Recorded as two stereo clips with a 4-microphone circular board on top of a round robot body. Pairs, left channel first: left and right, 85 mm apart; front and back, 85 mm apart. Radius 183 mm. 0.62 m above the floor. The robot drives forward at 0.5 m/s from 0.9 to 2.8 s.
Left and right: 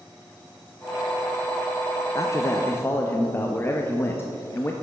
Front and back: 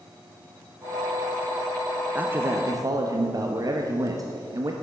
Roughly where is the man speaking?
Behind left.